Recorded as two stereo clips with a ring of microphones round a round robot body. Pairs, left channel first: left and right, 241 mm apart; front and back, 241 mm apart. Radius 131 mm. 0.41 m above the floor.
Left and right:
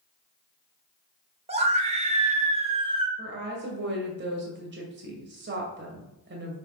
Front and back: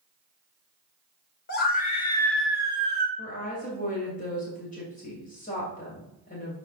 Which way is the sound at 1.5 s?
35° right.